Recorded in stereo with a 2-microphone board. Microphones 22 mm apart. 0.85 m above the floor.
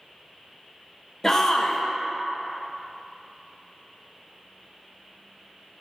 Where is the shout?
20° left (ahead or behind), 0.6 m.